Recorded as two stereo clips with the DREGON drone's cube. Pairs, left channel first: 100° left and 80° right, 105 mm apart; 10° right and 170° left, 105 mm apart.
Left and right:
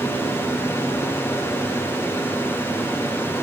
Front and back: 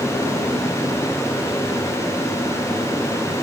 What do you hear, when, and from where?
Only background noise.